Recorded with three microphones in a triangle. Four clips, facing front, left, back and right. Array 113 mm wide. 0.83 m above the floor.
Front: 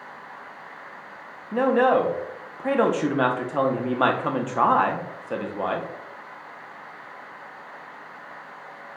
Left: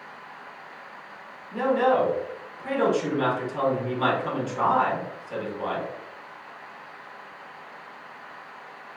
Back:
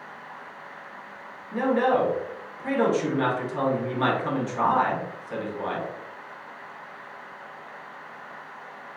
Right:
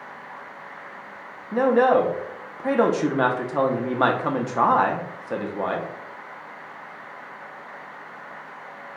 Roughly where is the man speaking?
Ahead right.